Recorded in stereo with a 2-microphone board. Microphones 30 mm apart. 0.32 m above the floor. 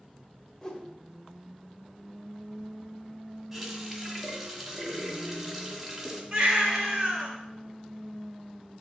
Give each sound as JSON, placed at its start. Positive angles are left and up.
{"t": 0.6, "sound": "a whoosh", "side_deg": 20, "distance_m": 1.1}
{"t": 3.5, "sound": "a running tap", "side_deg": -5, "distance_m": 1.5}
{"t": 6.3, "sound": "a baby crying", "side_deg": -25, "distance_m": 1.8}